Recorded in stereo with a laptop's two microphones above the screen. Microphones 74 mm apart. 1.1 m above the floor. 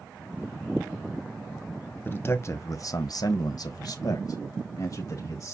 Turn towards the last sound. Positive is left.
turn(degrees=45)  # may be behind; listen again after turning